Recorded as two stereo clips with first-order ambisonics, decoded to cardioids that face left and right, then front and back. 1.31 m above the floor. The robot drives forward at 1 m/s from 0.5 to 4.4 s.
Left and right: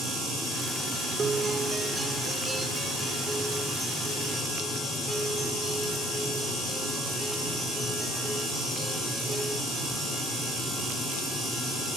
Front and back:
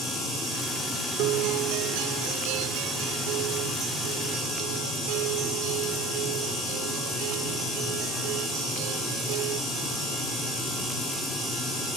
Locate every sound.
1.2 s a guitar: 160° right; by 9.6 s 175° right